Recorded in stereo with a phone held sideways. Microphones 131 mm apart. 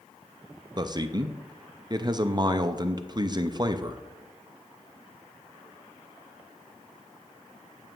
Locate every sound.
0.8 s a man speaking: 35° right (ahead or behind), 0.5 m